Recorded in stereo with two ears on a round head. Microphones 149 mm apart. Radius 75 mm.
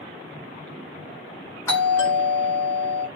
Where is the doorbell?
15° left (ahead or behind), 1.2 m.